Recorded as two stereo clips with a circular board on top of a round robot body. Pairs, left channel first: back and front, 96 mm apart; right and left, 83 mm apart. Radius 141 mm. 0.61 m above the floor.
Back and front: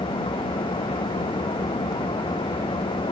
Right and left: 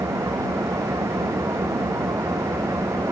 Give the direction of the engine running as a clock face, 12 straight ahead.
7 o'clock.